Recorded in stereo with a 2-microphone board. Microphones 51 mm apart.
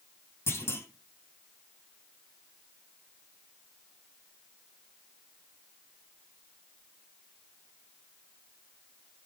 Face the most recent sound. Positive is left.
turn(degrees=55)  # may be behind; listen again after turning